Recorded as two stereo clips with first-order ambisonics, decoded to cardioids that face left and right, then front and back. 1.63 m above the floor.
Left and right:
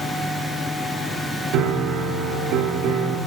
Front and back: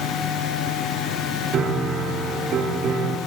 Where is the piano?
125° right, 2.5 m.